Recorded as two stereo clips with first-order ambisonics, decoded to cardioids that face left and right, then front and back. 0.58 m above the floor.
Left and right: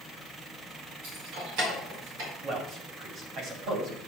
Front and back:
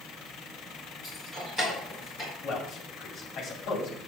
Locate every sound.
1.0 s keys jangling: 105° right, 4 m; by 2.3 s 85° right, 5 m
2.4 s a man speaking: 50° right, 2.5 m